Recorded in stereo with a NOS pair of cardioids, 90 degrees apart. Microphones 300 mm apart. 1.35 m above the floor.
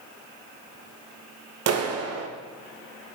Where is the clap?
55° right, 1.1 m.